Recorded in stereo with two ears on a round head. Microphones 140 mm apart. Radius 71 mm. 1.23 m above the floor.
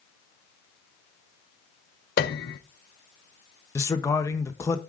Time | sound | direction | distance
2.2 | a piano | 70° left (ahead or behind) | 0.7 m
3.8 | a man speaking | 15° left (ahead or behind) | 0.8 m